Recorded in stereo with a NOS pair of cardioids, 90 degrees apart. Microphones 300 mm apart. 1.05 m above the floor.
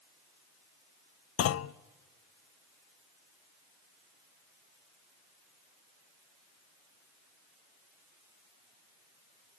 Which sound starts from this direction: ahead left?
A clunk, at 1.4 s.